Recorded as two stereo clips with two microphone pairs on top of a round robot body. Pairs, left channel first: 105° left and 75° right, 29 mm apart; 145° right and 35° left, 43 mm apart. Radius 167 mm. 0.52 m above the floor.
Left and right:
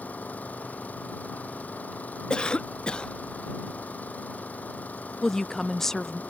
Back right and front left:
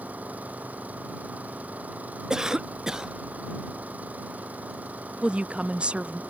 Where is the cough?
80° left.